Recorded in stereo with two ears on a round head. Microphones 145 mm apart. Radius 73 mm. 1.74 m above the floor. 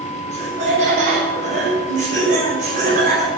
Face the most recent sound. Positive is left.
turn(degrees=-50)  # may be behind; listen again after turning